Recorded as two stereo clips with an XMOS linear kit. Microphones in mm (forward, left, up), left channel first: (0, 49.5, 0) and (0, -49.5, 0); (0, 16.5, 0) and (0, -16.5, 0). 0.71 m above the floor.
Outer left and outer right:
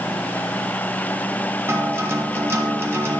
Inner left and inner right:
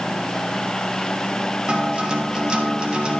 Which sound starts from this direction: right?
A guitar, at 1.7 s.